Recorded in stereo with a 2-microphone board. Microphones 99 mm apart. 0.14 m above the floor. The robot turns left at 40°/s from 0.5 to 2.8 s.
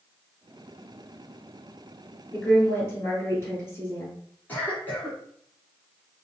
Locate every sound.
2.3 s a woman speaking: 10° left (ahead or behind), 1.7 m; by 4.2 s 25° left (ahead or behind), 1.7 m
4.5 s a cough: 20° left (ahead or behind), 1.5 m